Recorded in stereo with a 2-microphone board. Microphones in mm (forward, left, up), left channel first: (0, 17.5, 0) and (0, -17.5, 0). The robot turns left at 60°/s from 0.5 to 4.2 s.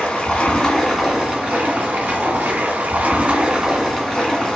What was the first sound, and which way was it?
Running water, 25° left.